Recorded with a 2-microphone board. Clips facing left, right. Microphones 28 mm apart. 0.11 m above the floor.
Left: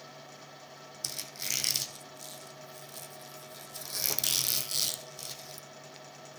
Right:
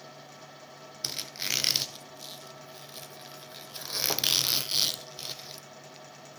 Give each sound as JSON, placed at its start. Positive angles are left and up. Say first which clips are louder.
{"t": 1.0, "sound": "a squeak", "louder": "right 5 dB", "side_deg": -40, "distance_m": 0.7}